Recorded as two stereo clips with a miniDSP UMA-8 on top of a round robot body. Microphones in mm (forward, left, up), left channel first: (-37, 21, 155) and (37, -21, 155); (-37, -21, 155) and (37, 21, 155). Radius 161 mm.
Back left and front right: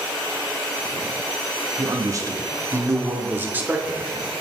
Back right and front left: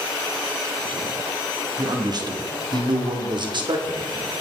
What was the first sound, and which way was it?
A man speaking, 5° left.